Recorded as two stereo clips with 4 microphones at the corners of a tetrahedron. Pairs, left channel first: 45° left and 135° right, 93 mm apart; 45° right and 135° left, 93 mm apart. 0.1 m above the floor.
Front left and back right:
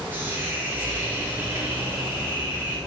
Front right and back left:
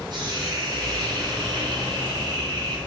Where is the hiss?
160° left, 2 m.